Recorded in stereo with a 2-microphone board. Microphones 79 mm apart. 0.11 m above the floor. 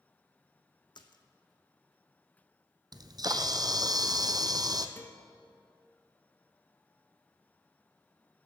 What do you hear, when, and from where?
0.9 s a splash: 70° left (ahead or behind), 0.9 m
2.9 s a camera shutter: 55° right (ahead or behind), 0.7 m
5.0 s a guitar: 25° left (ahead or behind), 1.1 m